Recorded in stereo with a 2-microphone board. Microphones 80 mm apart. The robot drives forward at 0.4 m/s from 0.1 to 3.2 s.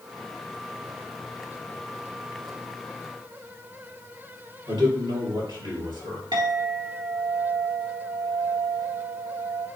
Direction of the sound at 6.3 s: 60° right (ahead or behind).